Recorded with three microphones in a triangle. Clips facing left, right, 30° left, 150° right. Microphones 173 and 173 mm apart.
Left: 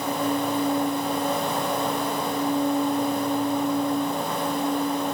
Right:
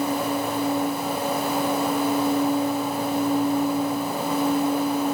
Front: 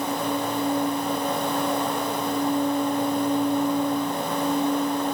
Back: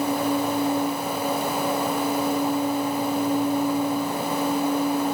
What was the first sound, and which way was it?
Only background noise.